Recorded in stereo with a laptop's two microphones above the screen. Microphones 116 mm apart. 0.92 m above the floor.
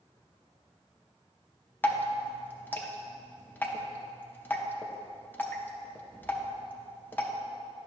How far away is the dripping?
About 0.7 m.